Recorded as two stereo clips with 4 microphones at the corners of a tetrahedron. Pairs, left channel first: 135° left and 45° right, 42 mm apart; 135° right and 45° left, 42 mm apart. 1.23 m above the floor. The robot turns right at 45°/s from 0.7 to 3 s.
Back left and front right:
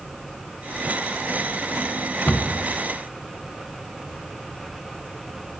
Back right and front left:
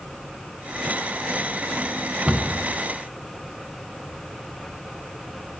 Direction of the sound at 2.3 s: 95° left.